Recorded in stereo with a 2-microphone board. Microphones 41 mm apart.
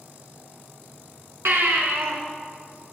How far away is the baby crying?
About 2.5 m.